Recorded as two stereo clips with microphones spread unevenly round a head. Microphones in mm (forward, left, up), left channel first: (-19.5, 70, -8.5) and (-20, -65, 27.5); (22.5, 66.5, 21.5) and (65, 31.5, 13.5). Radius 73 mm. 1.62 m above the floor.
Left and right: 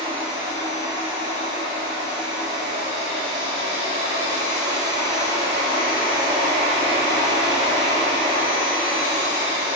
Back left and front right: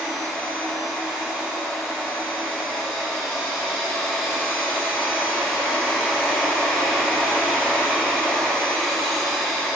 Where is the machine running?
45° left, 1.9 m.